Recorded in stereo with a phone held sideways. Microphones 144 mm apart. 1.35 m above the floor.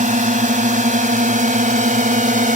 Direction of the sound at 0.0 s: 60° right (ahead or behind).